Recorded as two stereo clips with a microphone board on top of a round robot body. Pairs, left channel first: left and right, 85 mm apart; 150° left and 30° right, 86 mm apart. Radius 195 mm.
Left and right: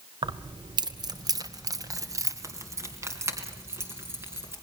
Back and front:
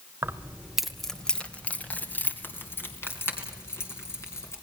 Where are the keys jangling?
90° right, 1.0 m; by 4.5 s 150° right, 4.5 m.